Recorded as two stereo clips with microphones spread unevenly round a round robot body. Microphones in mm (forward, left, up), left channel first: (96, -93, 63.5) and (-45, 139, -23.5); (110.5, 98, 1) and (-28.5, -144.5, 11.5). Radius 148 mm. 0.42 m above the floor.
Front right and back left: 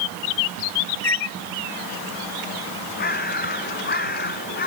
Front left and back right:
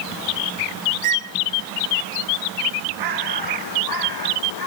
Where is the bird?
120° right.